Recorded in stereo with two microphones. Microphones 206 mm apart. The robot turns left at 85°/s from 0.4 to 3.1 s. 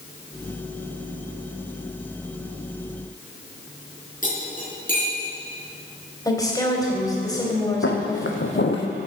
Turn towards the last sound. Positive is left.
turn(degrees=60)  # may be behind; listen again after turning